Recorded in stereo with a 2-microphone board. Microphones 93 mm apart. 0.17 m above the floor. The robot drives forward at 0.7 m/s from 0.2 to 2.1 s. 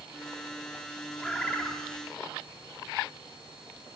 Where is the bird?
15° left (ahead or behind), 5 m.